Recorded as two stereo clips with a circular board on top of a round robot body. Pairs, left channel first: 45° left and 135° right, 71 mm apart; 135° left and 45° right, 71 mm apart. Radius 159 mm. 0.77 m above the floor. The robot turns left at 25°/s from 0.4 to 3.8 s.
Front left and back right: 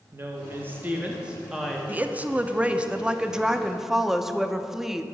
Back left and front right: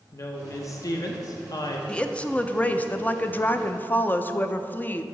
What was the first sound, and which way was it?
A woman speaking, 175° left.